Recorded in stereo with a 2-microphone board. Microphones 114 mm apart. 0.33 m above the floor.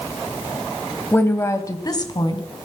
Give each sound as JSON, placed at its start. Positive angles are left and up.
{"t": 1.1, "sound": "a woman speaking", "side_deg": 15, "distance_m": 1.6}